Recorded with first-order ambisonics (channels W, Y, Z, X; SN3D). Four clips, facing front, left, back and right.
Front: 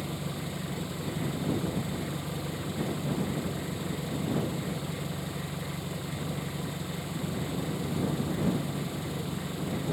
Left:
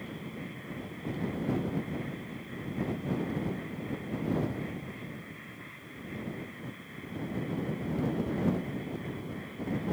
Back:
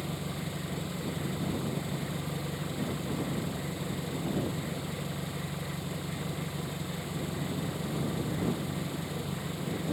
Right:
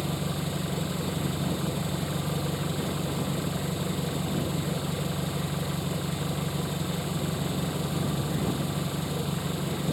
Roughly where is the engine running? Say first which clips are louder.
Right 10 dB, front 1 dB; right.